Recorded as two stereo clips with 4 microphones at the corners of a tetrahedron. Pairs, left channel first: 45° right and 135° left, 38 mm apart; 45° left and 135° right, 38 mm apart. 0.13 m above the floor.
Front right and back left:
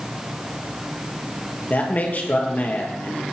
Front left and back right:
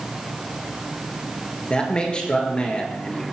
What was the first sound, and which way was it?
A man speaking, 15° right.